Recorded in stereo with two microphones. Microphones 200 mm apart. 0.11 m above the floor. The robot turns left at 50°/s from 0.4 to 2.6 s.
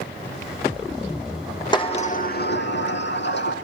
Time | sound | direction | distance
1.7 | a sliding door | 160° left | 2.5 m